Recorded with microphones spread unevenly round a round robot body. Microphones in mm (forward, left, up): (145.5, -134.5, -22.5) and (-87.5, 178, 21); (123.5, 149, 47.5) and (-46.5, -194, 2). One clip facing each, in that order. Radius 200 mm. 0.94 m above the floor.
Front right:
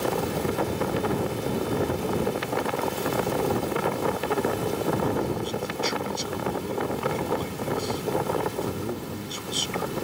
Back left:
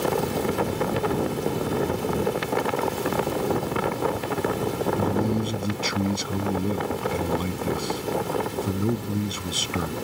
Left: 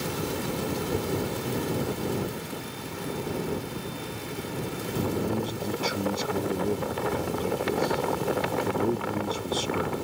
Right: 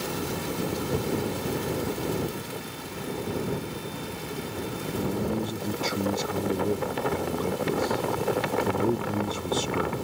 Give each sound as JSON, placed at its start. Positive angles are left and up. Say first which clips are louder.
{"t": 5.0, "sound": "a man speaking", "louder": "back left 3 dB, left 1 dB", "azimuth_deg": 160}